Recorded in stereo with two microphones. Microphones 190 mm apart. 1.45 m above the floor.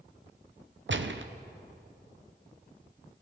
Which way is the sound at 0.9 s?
80° right.